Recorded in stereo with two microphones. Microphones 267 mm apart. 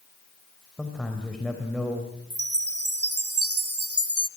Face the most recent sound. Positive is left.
turn(degrees=-55)  # may be behind; listen again after turning